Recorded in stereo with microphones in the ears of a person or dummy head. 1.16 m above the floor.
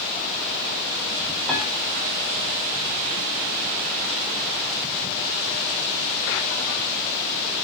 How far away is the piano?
About 2.5 m.